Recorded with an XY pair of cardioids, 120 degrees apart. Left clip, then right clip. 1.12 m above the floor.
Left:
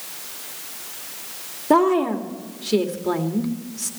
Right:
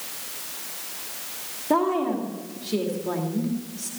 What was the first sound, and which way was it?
A woman speaking, 35° left.